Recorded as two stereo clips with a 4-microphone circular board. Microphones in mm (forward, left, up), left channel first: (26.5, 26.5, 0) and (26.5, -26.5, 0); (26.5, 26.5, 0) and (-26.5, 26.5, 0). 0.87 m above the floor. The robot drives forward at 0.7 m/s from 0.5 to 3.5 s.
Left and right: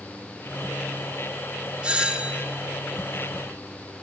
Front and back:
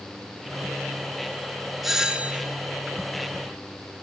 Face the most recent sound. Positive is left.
turn(degrees=-170)